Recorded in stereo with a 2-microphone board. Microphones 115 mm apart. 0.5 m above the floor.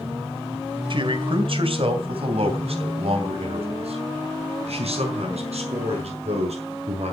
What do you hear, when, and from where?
0.9 s a man speaking: 50° right (ahead or behind), 2 m; by 7.1 s 70° right (ahead or behind), 6.5 m